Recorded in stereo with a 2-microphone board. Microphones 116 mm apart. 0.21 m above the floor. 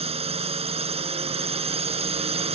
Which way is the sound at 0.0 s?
60° right (ahead or behind).